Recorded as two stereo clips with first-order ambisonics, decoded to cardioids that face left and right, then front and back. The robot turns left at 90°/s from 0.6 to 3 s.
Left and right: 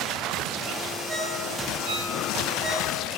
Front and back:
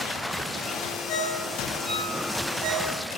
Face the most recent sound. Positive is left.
turn(degrees=165)